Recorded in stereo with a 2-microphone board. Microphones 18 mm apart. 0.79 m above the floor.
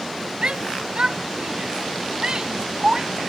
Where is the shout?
60° right (ahead or behind); by 3.2 s 35° right (ahead or behind).